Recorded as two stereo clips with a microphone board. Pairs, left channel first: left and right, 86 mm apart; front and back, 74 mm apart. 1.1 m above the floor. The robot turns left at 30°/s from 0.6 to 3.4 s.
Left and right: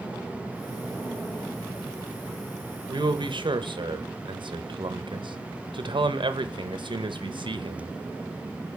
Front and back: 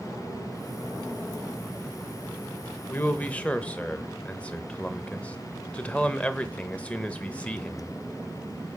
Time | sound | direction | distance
2.9 | a man speaking | 55° right | 0.9 m